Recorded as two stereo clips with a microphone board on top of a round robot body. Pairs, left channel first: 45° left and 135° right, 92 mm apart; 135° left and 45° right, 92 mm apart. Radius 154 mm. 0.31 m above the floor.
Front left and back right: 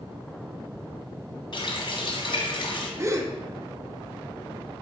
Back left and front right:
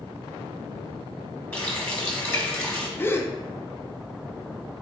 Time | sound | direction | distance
1.5 | a running tap | 65° left | 1.3 m
3.0 | a gasp | 170° right | 0.8 m